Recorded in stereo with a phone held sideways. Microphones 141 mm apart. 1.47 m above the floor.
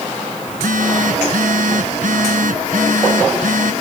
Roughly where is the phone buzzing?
Right.